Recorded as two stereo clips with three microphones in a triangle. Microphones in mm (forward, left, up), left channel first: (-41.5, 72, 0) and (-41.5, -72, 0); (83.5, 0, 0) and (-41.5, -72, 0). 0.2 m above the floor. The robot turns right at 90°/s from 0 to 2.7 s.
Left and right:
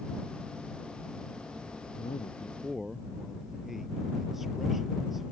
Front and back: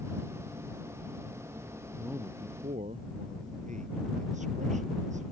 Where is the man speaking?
115° left; by 5.3 s straight behind.